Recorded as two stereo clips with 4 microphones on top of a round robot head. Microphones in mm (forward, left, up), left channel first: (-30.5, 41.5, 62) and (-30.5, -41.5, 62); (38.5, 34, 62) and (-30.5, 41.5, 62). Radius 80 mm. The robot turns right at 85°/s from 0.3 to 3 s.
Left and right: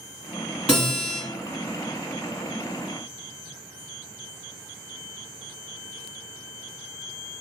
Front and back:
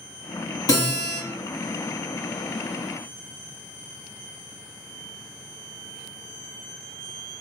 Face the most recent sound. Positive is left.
turn(degrees=-170)